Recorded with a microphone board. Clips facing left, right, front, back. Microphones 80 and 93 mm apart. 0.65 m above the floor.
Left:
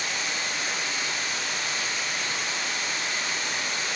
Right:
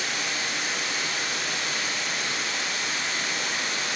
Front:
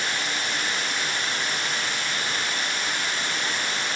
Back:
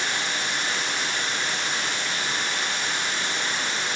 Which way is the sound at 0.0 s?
115° right.